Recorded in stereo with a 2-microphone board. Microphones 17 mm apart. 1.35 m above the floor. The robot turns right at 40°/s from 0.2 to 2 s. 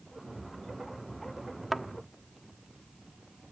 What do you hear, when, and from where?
1.7 s a thud: centre (ahead or behind), 1.0 m; by 1.9 s 5° right (ahead or behind), 1.0 m